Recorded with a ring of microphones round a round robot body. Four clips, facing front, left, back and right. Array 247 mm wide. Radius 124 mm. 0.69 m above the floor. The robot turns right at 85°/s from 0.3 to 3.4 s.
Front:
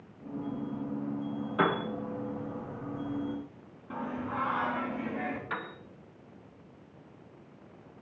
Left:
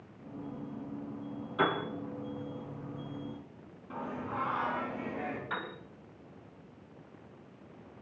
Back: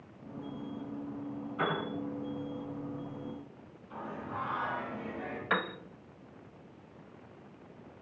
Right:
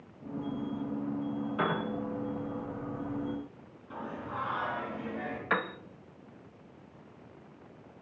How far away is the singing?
About 3.5 m.